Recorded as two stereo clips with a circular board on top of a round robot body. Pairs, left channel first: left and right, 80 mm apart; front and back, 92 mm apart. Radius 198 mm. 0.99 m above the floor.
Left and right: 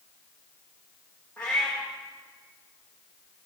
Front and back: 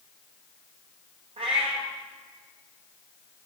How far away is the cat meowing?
About 0.8 m.